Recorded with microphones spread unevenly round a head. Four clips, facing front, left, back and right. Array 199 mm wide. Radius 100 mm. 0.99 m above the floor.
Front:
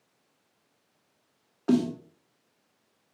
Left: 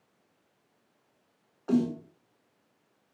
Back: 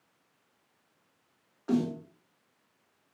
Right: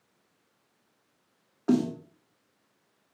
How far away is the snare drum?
About 2 m.